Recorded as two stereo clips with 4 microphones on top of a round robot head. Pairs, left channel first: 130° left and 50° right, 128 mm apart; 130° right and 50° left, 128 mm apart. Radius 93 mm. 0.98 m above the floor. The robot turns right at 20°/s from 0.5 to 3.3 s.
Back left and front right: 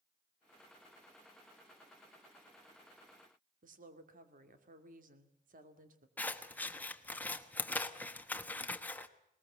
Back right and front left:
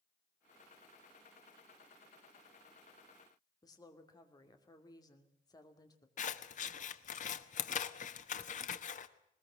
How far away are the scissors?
About 1.1 m.